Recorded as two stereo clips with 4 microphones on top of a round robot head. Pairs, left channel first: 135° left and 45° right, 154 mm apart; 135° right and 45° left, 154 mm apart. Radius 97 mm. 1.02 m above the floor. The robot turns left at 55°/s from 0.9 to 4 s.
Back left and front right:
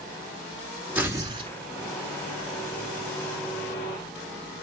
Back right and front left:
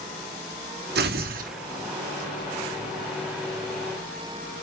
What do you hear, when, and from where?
0.9 s tearing paper: 40° left, 2.5 m; by 1.5 s 5° left, 2.5 m